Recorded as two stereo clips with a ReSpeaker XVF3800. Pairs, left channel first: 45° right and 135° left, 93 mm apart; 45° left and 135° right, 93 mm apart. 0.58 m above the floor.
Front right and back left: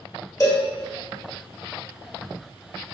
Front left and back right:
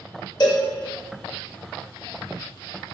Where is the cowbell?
10° left, 1.5 m.